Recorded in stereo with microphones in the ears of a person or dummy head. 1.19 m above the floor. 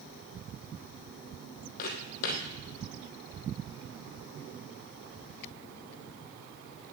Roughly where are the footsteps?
Left.